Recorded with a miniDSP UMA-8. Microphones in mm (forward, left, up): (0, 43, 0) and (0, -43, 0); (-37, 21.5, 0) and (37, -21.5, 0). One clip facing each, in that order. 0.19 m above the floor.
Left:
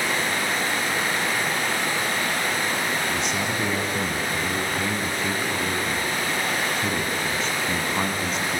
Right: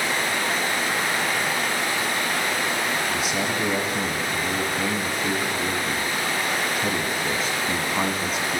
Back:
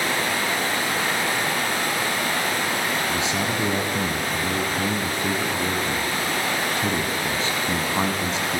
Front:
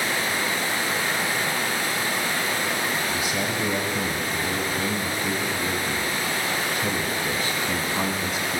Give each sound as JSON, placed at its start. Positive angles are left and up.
{"t": 0.0, "sound": "running water", "azimuth_deg": 180, "distance_m": 5.5}
{"t": 3.1, "sound": "a man speaking", "azimuth_deg": -175, "distance_m": 1.6}